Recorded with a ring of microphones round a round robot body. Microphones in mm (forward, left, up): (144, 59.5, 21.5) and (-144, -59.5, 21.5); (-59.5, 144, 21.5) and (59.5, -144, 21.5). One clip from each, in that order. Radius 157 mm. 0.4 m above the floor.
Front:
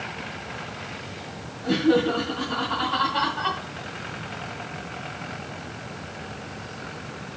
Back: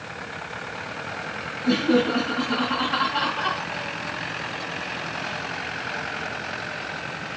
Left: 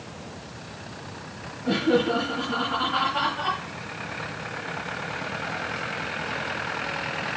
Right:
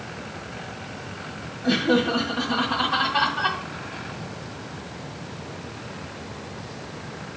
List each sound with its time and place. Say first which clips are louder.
1.6 s laughter: even, right 1 dB; 60° right, 2.5 m